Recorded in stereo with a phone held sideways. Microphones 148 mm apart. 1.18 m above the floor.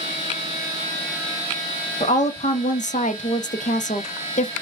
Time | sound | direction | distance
2.0 | a woman speaking | 60° left (ahead or behind) | 0.9 m